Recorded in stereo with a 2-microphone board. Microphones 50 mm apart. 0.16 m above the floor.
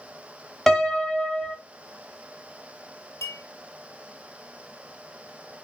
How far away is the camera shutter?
No camera shutter in this recording.